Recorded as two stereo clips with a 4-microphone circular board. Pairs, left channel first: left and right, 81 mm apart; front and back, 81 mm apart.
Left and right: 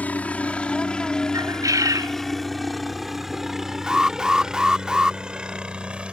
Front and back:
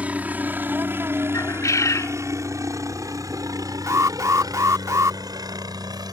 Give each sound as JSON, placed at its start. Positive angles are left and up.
{"t": 0.0, "sound": "a helicopter", "azimuth_deg": 130}
{"t": 1.3, "sound": "a bird", "azimuth_deg": -50}
{"t": 3.9, "sound": "an alarm", "azimuth_deg": -165}